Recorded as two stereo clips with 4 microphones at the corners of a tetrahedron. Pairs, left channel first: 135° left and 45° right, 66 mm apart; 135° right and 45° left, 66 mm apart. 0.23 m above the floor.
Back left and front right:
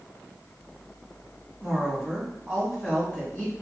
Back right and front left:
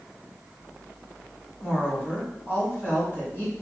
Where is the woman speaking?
115° right, 1.8 m.